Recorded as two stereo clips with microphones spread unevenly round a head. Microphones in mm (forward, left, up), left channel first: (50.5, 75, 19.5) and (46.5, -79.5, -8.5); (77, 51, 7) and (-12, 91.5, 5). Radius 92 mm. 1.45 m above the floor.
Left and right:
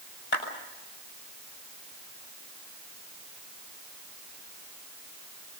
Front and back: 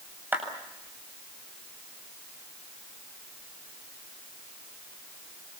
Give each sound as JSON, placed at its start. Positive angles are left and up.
{"t": 0.3, "sound": "a clap", "azimuth_deg": 85, "distance_m": 7.5}